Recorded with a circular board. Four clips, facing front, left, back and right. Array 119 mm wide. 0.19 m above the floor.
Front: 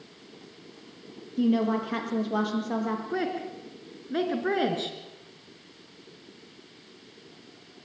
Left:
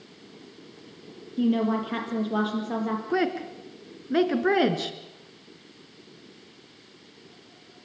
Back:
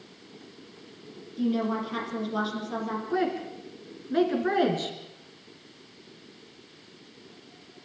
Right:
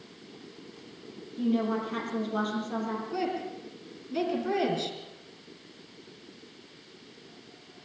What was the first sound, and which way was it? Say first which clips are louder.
A woman speaking: left 4 dB, front 3 dB; 40° left.